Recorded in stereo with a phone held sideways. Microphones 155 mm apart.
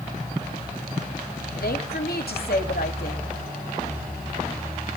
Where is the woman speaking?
80° left, 2.5 m.